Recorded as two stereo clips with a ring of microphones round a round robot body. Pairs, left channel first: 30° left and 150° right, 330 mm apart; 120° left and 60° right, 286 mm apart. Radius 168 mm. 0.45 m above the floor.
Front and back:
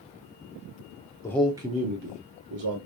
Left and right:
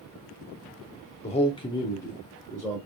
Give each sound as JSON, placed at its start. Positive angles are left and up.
{"t": 1.2, "sound": "a man speaking", "azimuth_deg": 95, "distance_m": 0.9}